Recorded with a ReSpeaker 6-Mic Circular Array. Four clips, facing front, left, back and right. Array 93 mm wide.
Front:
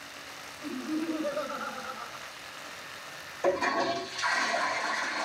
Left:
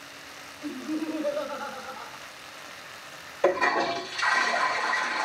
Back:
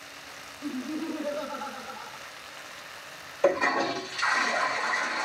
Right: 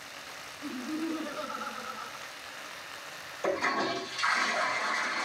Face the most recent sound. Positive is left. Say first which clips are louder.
# left 6 dB, back 3 dB
turn(degrees=120)